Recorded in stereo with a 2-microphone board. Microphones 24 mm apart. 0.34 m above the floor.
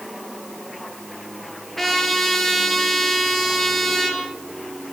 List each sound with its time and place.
1.8 s a trumpet: 10° left (ahead or behind), 4.5 m